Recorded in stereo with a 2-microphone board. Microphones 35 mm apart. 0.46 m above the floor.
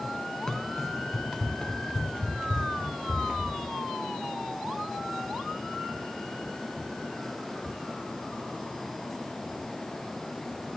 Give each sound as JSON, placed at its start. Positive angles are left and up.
{"t": 0.5, "sound": "running footsteps", "side_deg": 10, "distance_m": 3.5}